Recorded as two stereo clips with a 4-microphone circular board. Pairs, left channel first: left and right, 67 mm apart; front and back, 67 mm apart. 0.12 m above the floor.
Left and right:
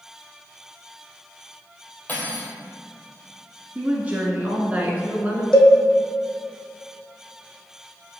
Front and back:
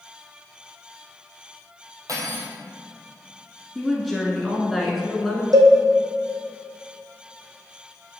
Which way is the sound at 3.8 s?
90° right.